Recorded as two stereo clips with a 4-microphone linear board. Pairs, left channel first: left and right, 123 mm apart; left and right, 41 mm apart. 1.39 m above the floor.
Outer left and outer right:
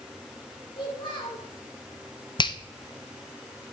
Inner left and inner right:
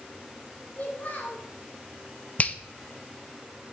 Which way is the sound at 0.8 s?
40° left (ahead or behind).